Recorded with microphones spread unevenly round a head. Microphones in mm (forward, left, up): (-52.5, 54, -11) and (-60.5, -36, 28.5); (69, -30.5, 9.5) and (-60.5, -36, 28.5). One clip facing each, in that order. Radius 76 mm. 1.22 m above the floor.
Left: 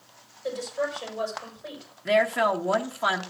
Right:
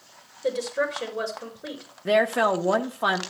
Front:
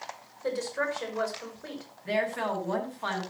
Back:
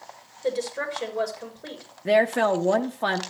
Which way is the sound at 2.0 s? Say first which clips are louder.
Right 1 dB, back 9 dB; 150° right.